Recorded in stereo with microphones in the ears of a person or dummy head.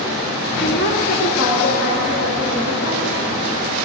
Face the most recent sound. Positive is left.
turn(degrees=80)